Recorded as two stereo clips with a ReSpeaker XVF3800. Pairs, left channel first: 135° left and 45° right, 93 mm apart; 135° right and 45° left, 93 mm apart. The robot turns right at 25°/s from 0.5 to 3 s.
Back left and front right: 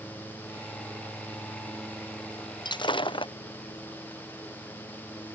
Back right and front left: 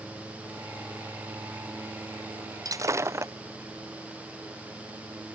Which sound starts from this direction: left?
Breaking glass, at 2.6 s.